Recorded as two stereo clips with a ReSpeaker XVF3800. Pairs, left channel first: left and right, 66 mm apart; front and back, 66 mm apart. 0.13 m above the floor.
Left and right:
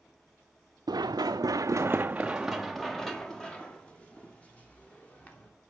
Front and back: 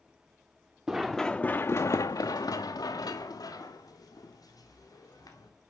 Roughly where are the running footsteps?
Right.